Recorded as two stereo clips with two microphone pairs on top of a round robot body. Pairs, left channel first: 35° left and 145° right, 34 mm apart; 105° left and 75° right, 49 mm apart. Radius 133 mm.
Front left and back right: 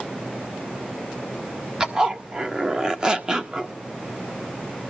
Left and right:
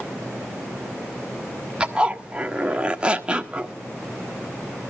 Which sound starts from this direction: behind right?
A zipper, at 1.8 s.